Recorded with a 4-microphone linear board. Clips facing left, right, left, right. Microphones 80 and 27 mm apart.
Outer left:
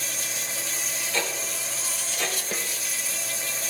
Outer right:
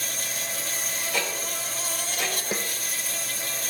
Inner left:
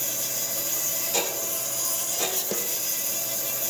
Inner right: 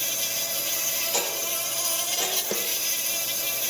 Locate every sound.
0.0 s an insect: 50° right (ahead or behind), 1.3 m
1.1 s ticking: 15° right (ahead or behind), 4.5 m
2.5 s a snare drum: 15° right (ahead or behind), 1.0 m